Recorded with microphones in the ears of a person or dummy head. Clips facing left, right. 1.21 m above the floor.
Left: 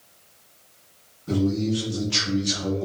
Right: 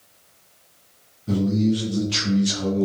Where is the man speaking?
10° right (ahead or behind), 0.9 m; by 2.9 s 70° right (ahead or behind), 0.8 m.